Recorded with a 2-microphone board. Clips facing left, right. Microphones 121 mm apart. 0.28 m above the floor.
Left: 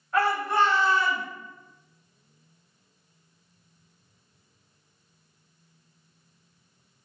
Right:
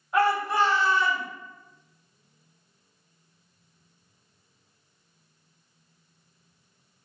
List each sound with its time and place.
0.1 s a shout: 15° right (ahead or behind), 1.9 m; by 1.2 s 5° left (ahead or behind), 1.7 m